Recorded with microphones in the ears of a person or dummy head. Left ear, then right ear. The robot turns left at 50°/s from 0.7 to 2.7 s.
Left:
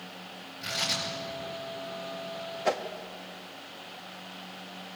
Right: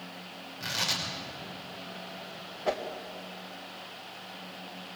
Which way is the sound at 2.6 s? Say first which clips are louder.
Left 2 dB; 70° left (ahead or behind).